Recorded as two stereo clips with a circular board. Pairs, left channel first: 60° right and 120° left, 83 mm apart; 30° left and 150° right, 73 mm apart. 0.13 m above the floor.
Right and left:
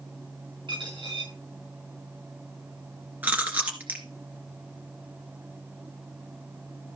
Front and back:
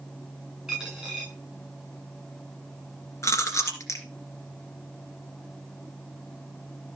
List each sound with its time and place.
0.7 s a dropped coin: 125° left, 8 m
3.2 s chewing: 55° left, 2.5 m